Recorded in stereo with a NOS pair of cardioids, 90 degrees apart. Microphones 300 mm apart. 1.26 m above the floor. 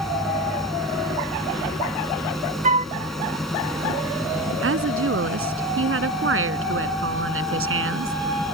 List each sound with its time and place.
0.0 s a machine running: straight ahead
2.6 s a flute: 25° right
4.6 s a woman speaking: 45° right